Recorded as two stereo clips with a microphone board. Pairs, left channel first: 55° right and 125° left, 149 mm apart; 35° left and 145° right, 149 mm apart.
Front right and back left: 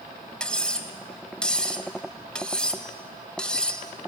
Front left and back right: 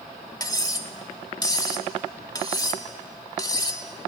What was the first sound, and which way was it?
Cutlery clinking, 20° left.